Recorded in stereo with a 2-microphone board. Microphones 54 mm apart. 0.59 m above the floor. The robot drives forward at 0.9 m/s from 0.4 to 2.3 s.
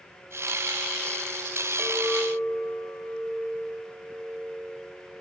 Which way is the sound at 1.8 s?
20° right (ahead or behind).